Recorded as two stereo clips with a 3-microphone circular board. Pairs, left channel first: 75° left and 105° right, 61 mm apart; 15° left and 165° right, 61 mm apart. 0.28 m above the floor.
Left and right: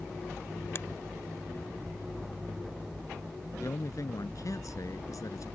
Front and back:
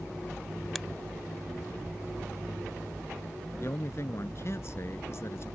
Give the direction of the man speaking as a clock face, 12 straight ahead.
10 o'clock.